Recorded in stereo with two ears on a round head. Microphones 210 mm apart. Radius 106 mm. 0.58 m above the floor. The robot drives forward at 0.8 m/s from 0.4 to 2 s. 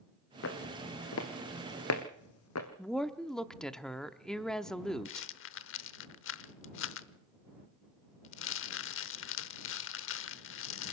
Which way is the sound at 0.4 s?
65° left (ahead or behind).